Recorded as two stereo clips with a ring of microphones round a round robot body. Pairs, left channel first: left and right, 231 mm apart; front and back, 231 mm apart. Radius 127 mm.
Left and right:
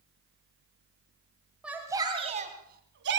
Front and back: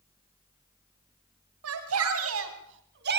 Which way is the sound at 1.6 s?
175° right.